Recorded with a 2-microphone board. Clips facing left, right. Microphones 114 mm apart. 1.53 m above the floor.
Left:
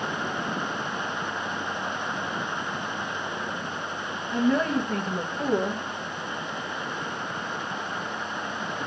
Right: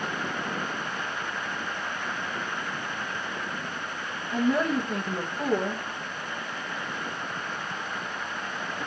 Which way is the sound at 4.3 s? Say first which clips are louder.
Left 1 dB; 5° right (ahead or behind).